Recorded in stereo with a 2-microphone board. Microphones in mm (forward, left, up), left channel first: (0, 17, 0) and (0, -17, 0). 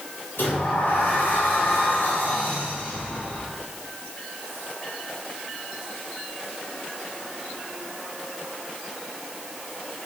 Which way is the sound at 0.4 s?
80° left.